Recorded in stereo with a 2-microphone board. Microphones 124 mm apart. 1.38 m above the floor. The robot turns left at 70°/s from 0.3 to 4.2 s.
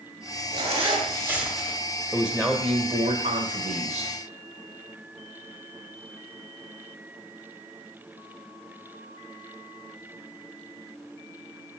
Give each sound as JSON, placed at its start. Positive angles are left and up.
{"t": 0.5, "sound": "a zipper", "azimuth_deg": -105, "distance_m": 1.6}
{"t": 2.1, "sound": "a man speaking", "azimuth_deg": 0, "distance_m": 1.1}